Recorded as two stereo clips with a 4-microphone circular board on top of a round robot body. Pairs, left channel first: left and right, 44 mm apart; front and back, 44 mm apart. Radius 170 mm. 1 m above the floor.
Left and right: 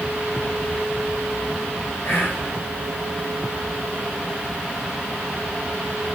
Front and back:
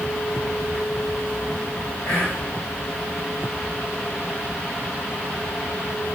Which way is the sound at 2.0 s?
45° left.